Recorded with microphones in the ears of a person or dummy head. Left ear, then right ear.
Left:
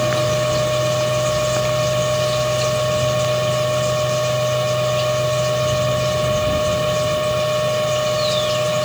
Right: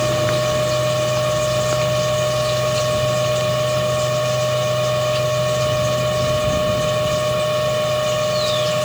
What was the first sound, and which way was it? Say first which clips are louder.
A machine running: even; centre (ahead or behind).